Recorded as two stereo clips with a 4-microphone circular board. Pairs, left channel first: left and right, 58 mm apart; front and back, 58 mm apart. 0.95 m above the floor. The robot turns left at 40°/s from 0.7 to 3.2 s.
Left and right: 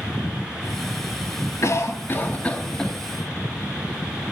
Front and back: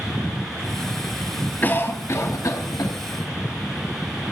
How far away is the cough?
About 1.8 m.